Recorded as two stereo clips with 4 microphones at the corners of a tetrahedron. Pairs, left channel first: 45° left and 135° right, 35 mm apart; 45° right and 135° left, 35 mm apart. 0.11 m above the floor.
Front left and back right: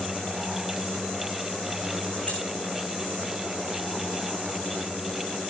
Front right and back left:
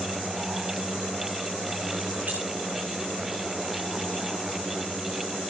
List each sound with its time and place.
2.3 s keys jangling: 100° left, 7 m